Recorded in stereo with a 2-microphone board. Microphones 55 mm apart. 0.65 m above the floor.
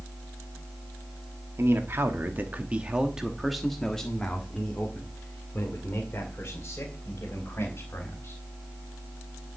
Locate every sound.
1.6 s a man speaking: 50° right (ahead or behind), 1.4 m; by 8.4 s 40° left (ahead or behind), 4 m